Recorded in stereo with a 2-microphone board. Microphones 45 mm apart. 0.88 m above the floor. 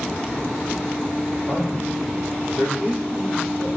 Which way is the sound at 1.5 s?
15° right (ahead or behind).